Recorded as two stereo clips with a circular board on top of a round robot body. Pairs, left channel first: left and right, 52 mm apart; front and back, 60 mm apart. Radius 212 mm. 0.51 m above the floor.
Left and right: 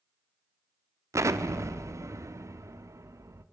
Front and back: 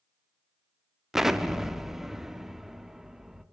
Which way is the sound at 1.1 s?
95° right.